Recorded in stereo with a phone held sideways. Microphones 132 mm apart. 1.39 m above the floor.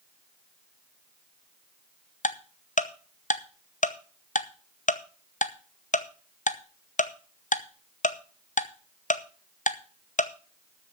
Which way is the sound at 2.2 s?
70° left (ahead or behind).